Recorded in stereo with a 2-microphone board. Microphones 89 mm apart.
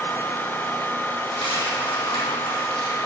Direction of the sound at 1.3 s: 85° left.